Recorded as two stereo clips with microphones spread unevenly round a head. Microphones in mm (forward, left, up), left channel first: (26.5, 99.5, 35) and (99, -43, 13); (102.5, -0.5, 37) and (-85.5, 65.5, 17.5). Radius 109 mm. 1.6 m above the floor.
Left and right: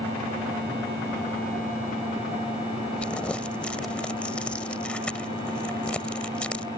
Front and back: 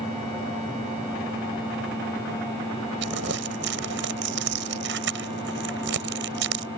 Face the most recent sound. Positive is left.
turn(degrees=-160)